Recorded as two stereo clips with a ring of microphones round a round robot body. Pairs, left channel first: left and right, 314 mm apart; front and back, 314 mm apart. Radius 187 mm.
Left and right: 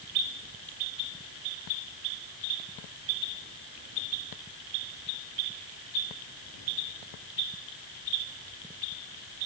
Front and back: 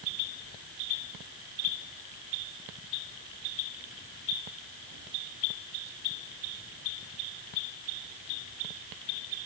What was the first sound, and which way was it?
Only background noise.